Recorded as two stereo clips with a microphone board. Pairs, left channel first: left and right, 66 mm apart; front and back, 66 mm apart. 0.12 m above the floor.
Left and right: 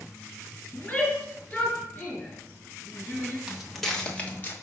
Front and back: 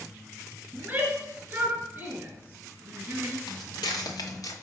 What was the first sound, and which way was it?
A shout, 145° left.